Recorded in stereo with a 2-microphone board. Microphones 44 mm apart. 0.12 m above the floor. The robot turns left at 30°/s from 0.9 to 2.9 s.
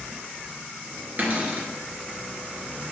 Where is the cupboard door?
40° right (ahead or behind), 1.6 m; by 1.7 s 35° right (ahead or behind), 1.6 m.